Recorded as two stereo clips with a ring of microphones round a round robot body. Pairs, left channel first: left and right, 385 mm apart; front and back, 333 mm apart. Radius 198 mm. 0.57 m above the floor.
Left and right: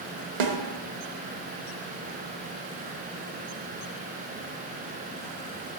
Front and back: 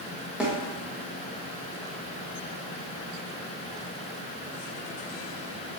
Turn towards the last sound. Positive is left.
turn(degrees=-95)